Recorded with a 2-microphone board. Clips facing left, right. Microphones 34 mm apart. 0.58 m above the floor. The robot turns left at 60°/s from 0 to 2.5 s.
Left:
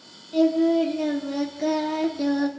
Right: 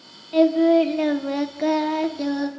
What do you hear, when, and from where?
0.3 s singing: 60° right, 1.1 m; by 2.5 s 170° left, 1.1 m